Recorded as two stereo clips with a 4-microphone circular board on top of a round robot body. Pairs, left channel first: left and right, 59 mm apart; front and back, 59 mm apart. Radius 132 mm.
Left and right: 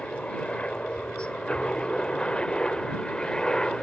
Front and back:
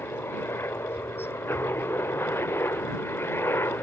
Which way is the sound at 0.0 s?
25° left.